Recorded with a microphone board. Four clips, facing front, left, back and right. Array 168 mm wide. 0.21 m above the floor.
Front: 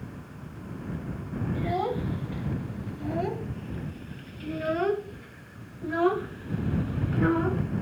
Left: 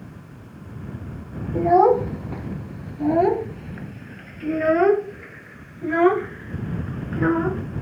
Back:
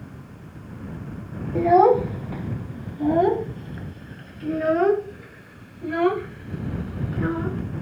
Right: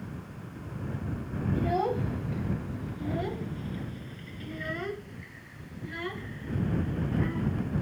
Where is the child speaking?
135° left; by 7.8 s 70° left.